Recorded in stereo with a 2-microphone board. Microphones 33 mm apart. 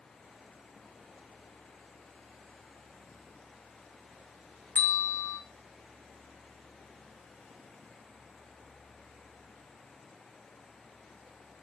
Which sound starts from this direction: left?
A bell, at 4.8 s.